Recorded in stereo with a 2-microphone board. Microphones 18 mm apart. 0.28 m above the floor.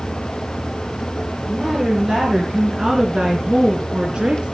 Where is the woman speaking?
20° right (ahead or behind), 5 m; by 4.5 s 60° right (ahead or behind), 3 m.